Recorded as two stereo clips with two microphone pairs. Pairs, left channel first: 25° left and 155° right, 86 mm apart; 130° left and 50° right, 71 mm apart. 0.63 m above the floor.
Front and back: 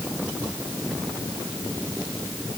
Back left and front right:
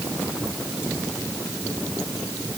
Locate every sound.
Only background noise.